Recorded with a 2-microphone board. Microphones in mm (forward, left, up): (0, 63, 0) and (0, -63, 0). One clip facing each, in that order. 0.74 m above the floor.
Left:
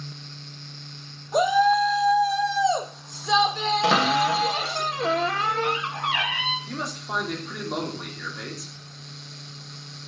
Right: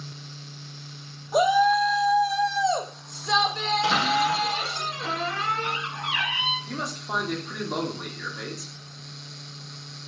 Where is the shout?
5° right (ahead or behind), 1.3 m; by 4.8 s 10° left (ahead or behind), 1.4 m.